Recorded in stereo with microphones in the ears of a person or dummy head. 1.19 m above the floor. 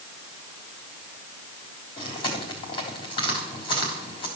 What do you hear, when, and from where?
2.0 s chewing: 30° left (ahead or behind), 3.5 m